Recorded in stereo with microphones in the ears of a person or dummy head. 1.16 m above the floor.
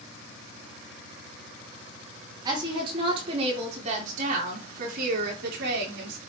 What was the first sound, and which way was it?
A woman speaking, 25° right (ahead or behind).